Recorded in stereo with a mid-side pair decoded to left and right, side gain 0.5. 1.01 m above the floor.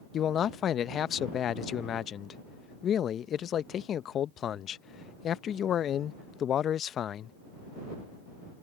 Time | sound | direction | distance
0.1 | a man speaking | 55° left | ?